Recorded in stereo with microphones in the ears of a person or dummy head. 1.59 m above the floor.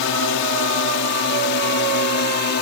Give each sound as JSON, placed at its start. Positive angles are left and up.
{"t": 0.0, "sound": "a drone", "side_deg": 65}